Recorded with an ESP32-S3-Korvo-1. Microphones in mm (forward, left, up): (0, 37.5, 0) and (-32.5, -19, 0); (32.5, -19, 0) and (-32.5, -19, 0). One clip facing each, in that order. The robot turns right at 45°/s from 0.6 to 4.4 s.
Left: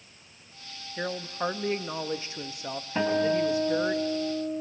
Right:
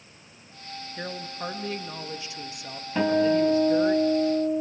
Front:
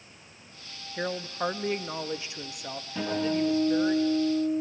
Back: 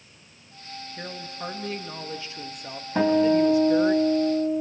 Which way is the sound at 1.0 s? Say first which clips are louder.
Left 4 dB, front 7 dB; straight ahead.